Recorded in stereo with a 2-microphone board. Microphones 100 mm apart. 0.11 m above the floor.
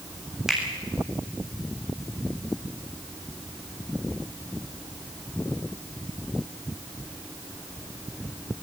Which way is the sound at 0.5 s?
5° right (ahead or behind).